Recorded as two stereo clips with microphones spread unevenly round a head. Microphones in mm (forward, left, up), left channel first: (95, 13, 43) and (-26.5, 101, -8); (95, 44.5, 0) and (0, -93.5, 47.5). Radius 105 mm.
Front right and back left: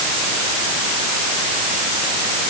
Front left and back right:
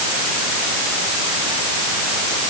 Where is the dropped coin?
I don't hear a dropped coin.